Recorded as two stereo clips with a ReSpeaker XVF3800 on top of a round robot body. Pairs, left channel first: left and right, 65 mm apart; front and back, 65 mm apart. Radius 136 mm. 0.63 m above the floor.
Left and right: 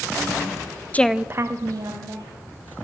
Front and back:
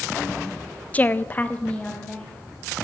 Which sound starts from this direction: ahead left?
A woman speaking, at 0.9 s.